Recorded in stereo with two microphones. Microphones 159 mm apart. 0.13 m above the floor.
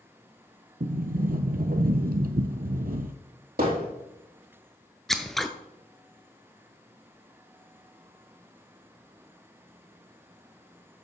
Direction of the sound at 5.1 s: Centre (ahead or behind).